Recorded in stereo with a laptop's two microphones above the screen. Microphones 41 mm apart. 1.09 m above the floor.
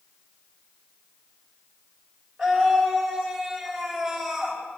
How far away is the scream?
About 6.5 m.